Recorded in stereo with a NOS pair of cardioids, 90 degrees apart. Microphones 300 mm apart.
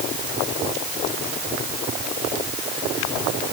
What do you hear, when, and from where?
Only background noise.